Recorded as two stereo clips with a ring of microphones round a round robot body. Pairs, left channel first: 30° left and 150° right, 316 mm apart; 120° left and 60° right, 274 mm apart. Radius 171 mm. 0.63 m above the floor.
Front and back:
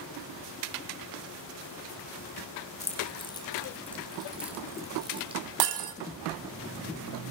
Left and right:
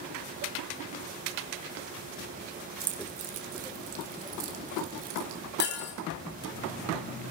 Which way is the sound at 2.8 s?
40° right.